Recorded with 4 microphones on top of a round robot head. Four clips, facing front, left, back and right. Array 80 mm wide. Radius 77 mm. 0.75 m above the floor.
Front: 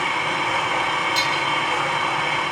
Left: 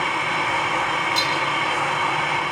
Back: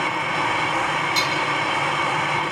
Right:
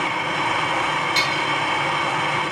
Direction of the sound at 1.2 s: 100° right.